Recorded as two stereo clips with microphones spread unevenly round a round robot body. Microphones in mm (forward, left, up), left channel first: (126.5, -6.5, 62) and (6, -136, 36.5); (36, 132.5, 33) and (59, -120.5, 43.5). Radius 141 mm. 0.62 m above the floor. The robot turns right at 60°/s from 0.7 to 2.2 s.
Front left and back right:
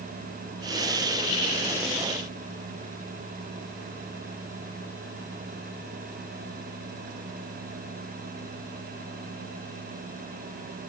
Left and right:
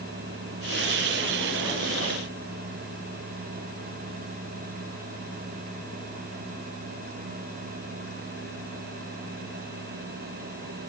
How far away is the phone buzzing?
No phone buzzing in this recording.